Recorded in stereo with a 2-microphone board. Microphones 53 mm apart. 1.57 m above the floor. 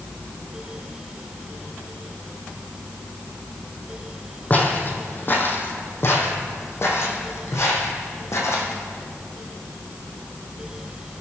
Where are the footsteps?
30° left (ahead or behind), 2.5 m; by 8.7 s 65° left (ahead or behind), 3.5 m.